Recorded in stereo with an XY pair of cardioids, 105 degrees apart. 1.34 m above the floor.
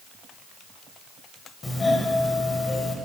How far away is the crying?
No crying in this recording.